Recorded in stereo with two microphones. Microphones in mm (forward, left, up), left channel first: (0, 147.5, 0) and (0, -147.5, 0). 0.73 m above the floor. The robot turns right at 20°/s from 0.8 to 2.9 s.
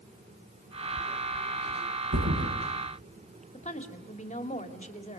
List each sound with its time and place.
2.1 s a thud: 70° right (ahead or behind), 7.5 m; by 2.5 s 60° right (ahead or behind), 7.5 m
3.5 s a woman speaking: 25° left (ahead or behind), 2 m